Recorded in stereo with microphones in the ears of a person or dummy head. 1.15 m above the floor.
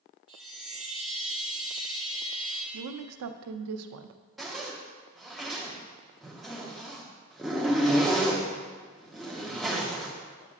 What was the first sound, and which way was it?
A chime, 5° right (ahead or behind).